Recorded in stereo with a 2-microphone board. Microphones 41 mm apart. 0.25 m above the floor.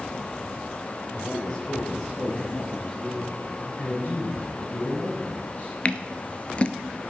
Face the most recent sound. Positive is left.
turn(degrees=35)  # may be behind; listen again after turning